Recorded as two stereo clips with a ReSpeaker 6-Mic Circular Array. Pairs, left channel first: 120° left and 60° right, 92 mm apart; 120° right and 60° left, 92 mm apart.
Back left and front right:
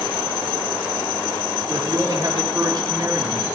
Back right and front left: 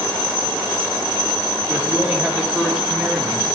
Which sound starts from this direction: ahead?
A man speaking, at 1.7 s.